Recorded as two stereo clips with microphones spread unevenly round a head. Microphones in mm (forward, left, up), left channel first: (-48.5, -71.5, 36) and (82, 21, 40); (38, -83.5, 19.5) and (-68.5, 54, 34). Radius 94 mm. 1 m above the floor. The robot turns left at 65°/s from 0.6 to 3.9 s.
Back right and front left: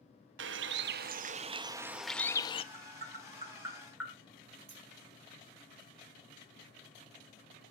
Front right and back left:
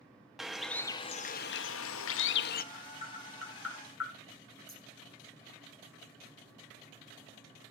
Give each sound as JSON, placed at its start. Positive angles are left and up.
{"t": 0.4, "sound": "a bird", "azimuth_deg": 40, "distance_m": 0.6}
{"t": 2.7, "sound": "tapping", "azimuth_deg": 25, "distance_m": 5.0}
{"t": 4.7, "sound": "scissors", "azimuth_deg": 20, "distance_m": 3.5}